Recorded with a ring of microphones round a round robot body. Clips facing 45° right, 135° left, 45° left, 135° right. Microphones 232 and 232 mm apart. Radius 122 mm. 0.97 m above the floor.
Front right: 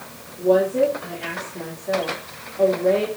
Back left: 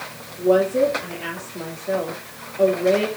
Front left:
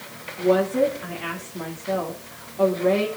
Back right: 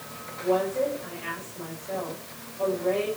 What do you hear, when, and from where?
0.4 s a woman speaking: 50° left, 3 m